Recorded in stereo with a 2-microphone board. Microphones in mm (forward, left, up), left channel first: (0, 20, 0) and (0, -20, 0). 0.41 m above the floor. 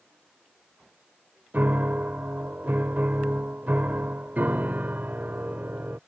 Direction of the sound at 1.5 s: 50° right (ahead or behind).